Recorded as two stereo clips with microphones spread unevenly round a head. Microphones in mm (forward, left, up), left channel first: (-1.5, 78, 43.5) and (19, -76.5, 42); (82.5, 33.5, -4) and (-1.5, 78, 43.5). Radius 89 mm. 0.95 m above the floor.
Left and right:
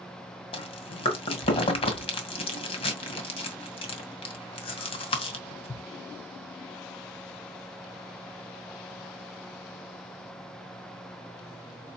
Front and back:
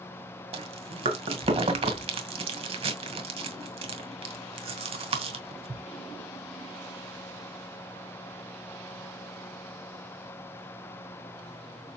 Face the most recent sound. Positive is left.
turn(degrees=155)